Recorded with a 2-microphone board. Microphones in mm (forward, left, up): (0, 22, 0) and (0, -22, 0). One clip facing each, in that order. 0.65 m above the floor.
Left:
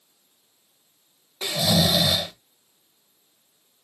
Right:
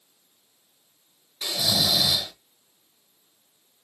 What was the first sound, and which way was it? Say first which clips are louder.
Snoring: left 4 dB; 35° left (ahead or behind).